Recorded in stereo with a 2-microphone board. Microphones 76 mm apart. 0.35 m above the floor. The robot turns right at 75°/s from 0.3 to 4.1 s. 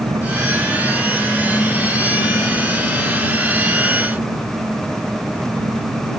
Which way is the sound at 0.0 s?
75° right.